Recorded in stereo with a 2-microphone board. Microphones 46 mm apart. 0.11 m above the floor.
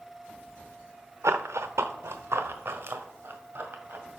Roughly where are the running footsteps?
Right.